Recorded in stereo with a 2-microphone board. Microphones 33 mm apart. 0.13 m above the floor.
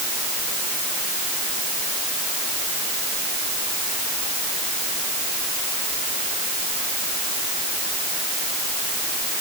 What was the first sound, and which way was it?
Only background noise.